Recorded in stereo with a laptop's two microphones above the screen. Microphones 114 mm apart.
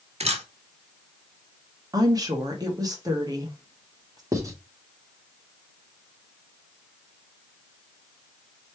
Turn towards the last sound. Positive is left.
turn(degrees=-30)  # may be behind; listen again after turning